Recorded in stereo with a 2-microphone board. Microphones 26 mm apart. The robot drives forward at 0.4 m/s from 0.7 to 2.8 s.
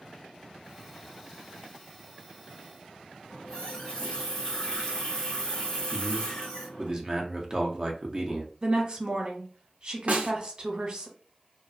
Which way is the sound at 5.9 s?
25° right (ahead or behind).